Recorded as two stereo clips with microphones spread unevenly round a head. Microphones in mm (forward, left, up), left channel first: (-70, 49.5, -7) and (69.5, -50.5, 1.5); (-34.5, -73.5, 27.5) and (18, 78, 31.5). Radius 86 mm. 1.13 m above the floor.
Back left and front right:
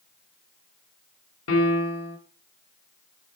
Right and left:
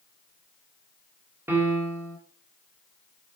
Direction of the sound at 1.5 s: 145° left.